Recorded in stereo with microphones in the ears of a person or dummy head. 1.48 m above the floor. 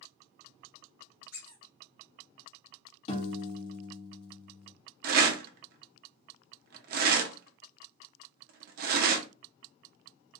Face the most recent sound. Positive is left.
turn(degrees=-50)  # may be behind; listen again after turning